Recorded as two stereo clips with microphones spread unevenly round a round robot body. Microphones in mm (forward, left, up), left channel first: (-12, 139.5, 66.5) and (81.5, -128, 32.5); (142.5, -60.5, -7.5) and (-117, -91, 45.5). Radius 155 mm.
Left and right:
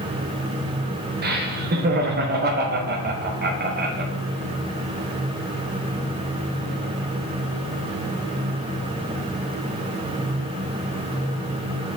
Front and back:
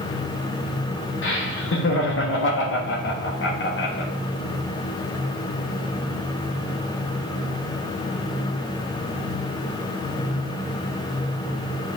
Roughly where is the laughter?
Ahead.